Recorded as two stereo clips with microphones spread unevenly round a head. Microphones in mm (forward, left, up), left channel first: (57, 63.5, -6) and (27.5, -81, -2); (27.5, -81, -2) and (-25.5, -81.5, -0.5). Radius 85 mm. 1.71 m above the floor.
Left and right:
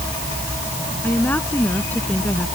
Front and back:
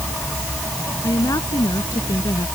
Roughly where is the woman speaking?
Ahead.